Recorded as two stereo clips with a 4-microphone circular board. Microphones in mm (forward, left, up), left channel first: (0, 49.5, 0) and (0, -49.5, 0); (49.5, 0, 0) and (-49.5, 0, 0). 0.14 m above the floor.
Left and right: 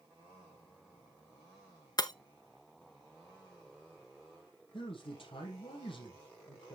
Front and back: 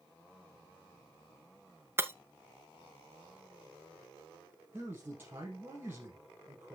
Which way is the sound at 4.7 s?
115° left.